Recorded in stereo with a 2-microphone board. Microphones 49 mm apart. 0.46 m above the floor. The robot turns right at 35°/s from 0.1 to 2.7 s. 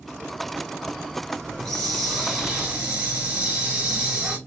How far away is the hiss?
About 1.8 m.